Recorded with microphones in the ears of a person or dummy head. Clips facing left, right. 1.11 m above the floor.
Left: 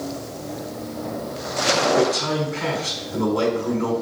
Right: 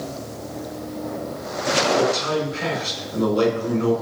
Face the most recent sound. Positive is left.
turn(degrees=60)  # may be behind; listen again after turning